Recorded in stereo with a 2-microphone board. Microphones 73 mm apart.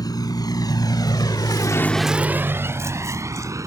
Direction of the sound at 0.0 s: 65° left (ahead or behind).